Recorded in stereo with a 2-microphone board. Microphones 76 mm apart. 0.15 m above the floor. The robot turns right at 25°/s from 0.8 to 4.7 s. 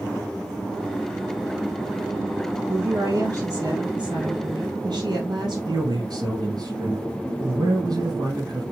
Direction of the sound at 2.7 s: 125° right.